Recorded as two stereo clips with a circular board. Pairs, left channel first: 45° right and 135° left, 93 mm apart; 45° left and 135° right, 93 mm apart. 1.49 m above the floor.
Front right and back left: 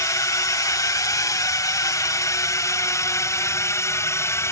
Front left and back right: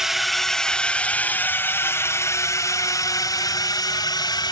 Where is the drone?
55° right; by 4.5 s 10° left.